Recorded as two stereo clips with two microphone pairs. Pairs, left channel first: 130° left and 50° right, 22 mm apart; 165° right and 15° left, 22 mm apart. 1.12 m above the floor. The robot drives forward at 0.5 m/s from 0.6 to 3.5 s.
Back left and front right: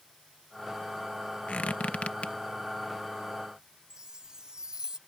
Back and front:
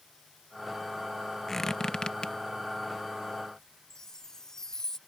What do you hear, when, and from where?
1.5 s a squeak: 115° left; by 2.4 s 145° left
3.9 s a chime: 105° right